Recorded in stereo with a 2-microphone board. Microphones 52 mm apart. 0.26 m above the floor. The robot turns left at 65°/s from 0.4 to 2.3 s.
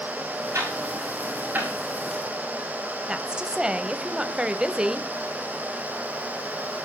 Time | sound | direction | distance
0.5 | ticking | 70° right (ahead or behind) | 7 m
3.1 | a woman speaking | 15° right (ahead or behind) | 1.0 m